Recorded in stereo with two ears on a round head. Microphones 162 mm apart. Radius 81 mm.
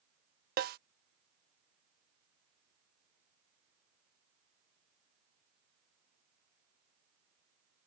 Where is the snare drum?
55° right (ahead or behind).